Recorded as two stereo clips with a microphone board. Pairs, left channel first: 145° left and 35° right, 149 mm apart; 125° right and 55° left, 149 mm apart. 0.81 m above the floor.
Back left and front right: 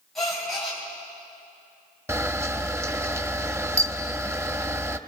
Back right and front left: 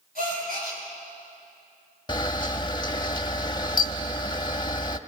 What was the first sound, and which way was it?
A gasp, 55° left.